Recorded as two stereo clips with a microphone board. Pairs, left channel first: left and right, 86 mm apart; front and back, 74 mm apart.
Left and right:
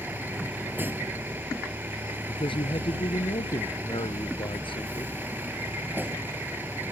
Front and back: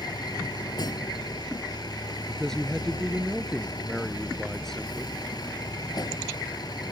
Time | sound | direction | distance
0.0 | a vehicle | 20° right | ?
2.3 | a man speaking | 85° left | ?